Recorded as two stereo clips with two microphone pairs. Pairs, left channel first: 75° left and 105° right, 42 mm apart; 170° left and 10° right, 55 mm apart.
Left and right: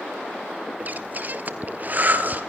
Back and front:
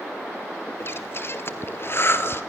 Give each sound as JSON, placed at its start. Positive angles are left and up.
{"t": 0.8, "sound": "breathing", "azimuth_deg": -150, "distance_m": 1.4}